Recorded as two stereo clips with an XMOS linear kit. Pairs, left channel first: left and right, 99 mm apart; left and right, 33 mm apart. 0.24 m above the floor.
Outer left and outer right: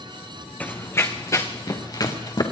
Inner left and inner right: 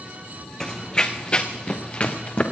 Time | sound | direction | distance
0.6 | running footsteps | 15° left (ahead or behind) | 1.1 m